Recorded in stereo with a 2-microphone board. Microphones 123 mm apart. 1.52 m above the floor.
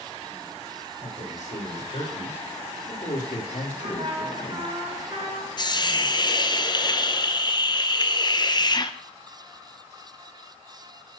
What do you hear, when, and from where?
1.0 s a man speaking: 85° left, 6.5 m; by 4.8 s 55° left (ahead or behind), 1.6 m
3.8 s a trumpet: 45° right (ahead or behind), 3 m
5.6 s a hiss: 35° left (ahead or behind), 0.7 m